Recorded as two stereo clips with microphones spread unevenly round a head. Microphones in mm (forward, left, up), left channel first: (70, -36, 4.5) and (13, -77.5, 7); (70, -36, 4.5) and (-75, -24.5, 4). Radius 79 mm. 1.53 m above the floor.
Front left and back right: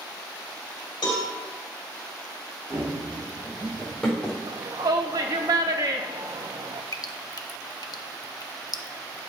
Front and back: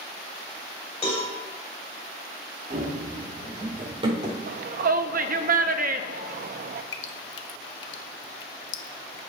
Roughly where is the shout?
Behind.